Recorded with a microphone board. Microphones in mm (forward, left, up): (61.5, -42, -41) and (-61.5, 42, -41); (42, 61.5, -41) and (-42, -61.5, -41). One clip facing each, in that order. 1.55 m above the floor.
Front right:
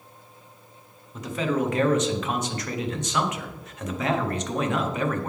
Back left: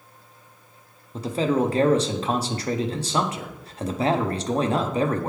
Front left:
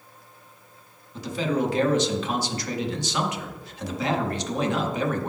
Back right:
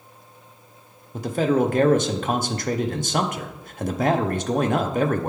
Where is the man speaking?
160° right, 0.6 m.